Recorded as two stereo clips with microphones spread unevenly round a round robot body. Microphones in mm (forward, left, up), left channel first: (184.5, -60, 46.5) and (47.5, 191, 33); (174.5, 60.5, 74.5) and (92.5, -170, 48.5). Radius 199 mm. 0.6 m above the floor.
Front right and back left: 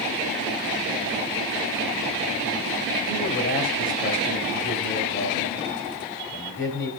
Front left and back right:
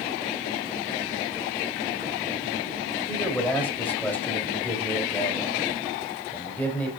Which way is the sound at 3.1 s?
15° right.